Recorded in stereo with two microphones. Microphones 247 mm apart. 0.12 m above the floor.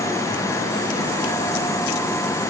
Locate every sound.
Only background noise.